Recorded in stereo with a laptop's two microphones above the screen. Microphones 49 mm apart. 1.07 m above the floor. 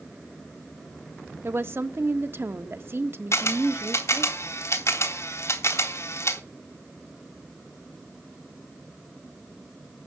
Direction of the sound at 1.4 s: 55° right (ahead or behind).